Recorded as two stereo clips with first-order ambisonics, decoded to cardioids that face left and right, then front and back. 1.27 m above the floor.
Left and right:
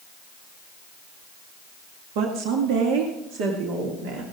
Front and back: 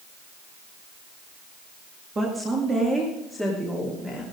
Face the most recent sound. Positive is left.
turn(degrees=-95)